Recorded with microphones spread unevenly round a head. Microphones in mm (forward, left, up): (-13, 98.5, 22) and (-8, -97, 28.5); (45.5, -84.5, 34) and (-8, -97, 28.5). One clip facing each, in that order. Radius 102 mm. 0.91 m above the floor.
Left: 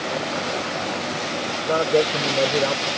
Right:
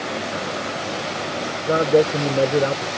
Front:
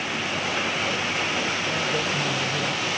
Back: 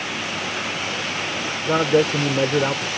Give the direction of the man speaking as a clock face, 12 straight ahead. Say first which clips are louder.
Right 3 dB, back 7 dB; 5 o'clock.